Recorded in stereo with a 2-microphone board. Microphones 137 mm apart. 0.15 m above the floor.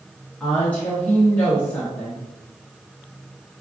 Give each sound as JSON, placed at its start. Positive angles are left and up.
{"t": 0.4, "sound": "a woman speaking", "side_deg": 10, "distance_m": 1.4}